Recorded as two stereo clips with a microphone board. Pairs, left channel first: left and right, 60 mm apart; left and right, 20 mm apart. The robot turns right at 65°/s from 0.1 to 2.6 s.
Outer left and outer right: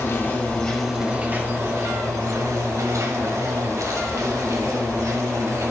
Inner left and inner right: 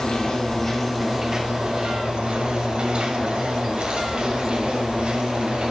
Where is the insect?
130° left, 1.8 m; by 5.7 s 65° right, 1.8 m.